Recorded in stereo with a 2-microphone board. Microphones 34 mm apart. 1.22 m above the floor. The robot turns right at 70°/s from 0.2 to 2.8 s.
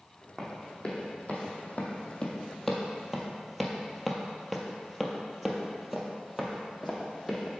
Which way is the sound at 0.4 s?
10° left (ahead or behind).